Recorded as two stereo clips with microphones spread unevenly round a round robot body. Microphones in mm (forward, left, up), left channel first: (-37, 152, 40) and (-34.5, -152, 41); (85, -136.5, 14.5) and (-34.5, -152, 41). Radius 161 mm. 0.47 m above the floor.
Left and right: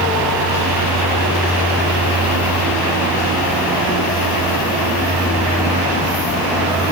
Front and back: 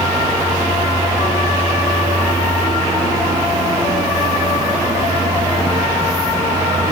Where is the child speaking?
No child speaking in this recording.